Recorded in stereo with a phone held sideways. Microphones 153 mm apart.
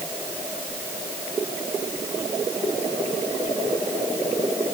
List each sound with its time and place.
Only background noise.